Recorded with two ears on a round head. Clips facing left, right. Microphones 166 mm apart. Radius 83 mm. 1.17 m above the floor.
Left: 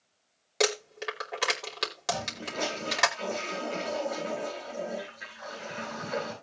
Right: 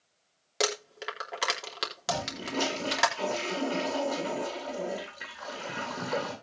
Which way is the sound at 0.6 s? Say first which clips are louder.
Left 3 dB; 5° right (ahead or behind).